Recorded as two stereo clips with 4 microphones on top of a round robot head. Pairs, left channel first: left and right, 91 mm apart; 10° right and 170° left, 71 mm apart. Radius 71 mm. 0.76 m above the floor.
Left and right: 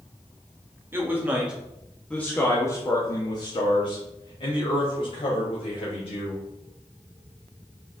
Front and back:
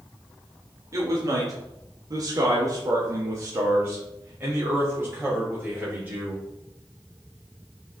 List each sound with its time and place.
0.9 s a man speaking: 150° right, 1.9 m; by 6.4 s 95° left, 4 m